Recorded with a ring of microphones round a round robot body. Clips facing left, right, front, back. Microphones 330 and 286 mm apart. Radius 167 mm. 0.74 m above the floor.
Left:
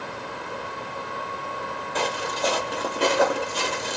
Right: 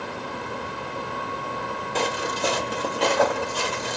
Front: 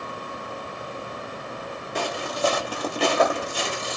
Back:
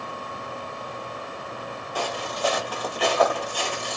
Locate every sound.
1.9 s footsteps: 55° right, 0.9 m; by 4.0 s 60° left, 0.9 m